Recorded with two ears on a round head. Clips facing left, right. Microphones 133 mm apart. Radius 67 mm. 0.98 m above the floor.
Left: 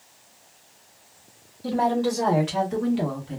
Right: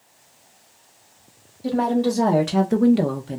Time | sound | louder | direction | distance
1.6 | a woman speaking | right 2 dB | 15° right (ahead or behind) | 1.0 m